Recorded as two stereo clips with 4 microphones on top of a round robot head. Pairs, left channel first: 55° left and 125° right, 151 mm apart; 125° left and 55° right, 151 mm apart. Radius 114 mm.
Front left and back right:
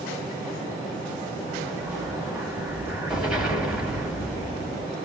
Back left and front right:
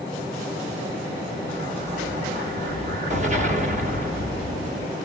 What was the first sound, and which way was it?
An explosion, 40° right.